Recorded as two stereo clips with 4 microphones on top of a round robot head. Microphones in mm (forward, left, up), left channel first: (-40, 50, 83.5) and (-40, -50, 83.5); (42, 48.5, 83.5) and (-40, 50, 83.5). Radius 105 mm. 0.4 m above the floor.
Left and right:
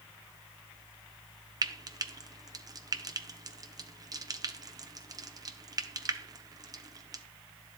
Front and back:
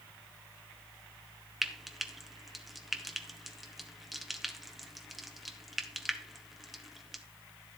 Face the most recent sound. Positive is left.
turn(degrees=-95)